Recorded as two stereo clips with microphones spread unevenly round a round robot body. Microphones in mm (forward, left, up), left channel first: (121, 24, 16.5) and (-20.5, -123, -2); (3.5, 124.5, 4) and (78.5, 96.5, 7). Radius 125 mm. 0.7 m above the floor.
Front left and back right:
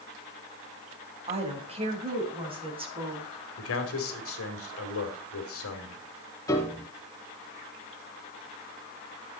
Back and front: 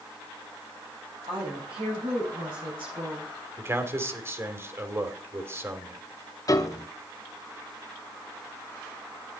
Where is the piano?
120° left, 1.0 m.